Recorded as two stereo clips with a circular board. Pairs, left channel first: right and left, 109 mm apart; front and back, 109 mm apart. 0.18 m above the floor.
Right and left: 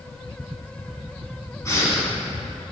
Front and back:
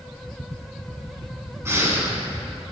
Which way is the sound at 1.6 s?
130° right.